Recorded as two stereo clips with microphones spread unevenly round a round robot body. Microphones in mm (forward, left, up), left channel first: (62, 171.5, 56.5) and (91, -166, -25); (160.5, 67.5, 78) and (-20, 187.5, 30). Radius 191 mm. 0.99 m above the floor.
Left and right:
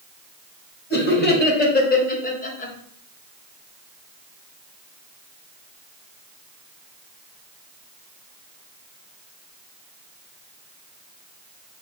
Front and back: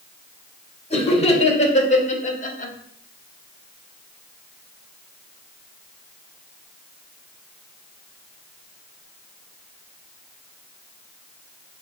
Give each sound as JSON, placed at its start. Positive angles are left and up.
{"t": 0.9, "sound": "laughter", "azimuth_deg": 30, "distance_m": 2.0}